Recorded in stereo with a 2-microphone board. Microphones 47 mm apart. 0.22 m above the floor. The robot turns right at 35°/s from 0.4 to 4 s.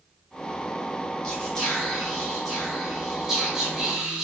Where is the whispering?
15° left (ahead or behind), 1.7 m; by 4.2 s 15° right (ahead or behind), 1.7 m.